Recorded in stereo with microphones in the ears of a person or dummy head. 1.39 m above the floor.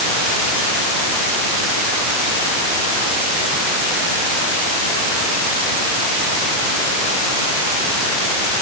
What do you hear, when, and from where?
Only background noise.